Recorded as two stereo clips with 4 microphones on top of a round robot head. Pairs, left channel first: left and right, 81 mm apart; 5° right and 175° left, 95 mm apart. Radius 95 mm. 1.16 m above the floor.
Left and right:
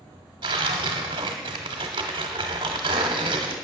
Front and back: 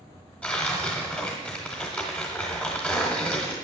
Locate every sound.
0.4 s tearing paper: 85° right, 0.9 m